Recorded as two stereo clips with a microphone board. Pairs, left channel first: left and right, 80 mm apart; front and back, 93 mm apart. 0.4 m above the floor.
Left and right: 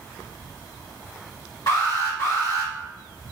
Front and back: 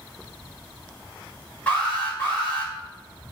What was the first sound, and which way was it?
An alarm, 70° left.